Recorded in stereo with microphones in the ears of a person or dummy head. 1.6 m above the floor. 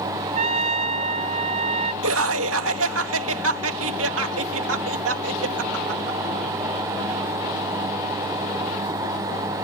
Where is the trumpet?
45° right (ahead or behind).